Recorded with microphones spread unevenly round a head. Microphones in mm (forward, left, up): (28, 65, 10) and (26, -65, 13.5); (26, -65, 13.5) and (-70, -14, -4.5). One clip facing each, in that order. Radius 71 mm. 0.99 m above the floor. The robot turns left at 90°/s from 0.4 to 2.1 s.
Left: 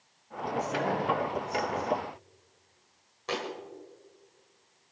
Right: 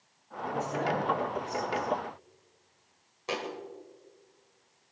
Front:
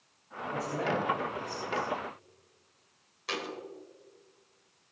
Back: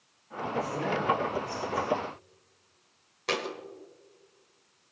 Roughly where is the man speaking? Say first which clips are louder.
Left 1 dB, back 1 dB; ahead left.